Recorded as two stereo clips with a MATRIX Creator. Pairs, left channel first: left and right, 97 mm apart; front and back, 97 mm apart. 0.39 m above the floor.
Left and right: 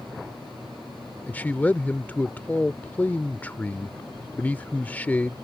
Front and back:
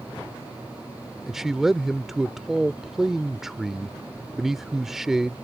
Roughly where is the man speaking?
Left.